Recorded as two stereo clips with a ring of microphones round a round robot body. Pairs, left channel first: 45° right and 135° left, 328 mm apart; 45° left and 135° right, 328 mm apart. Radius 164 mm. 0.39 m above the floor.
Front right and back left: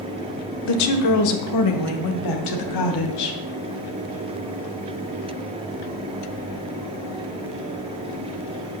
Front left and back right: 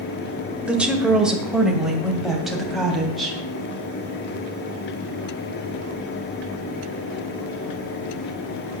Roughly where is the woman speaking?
Ahead right.